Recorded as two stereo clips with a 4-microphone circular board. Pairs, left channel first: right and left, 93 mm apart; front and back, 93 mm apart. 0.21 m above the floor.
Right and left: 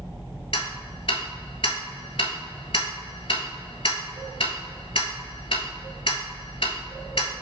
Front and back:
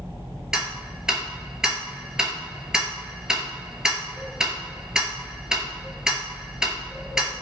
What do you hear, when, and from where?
0.5 s ticking: 95° right, 0.6 m